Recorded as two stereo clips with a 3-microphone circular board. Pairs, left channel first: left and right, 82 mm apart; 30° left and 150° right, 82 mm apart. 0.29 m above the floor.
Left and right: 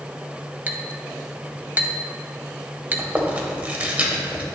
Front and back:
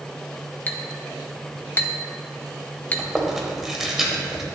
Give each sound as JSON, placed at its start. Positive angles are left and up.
{"t": 0.7, "sound": "a clink", "azimuth_deg": -30, "distance_m": 0.8}
{"t": 3.0, "sound": "chewing", "azimuth_deg": -75, "distance_m": 1.4}